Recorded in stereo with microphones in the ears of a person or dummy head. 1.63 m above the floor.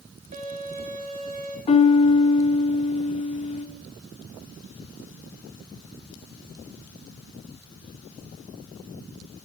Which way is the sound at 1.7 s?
30° left (ahead or behind).